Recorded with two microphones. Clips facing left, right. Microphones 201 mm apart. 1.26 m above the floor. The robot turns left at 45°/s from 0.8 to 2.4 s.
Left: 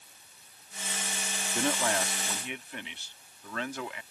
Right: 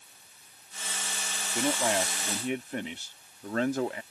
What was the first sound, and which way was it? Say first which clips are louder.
A man speaking: right 2 dB; 5° right.